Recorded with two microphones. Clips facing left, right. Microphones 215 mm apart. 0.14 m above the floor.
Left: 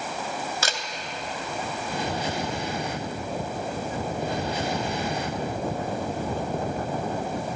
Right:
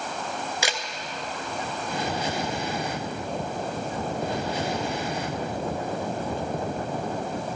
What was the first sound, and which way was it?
A camera shutter, 15° right (ahead or behind).